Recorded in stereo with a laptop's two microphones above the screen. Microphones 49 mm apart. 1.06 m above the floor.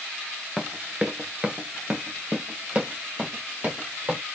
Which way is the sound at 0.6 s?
15° right (ahead or behind).